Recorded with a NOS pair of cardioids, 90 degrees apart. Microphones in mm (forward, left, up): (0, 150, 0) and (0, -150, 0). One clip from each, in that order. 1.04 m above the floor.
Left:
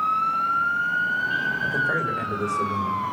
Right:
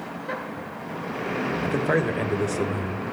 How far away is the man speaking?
About 4.5 m.